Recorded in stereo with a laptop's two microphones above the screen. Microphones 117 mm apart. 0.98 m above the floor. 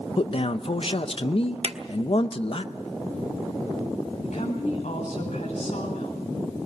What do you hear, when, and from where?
0.2 s a man speaking: 55° left (ahead or behind), 0.8 m
1.6 s a drawer: 55° right (ahead or behind), 0.7 m
4.2 s a woman speaking: 85° left, 8 m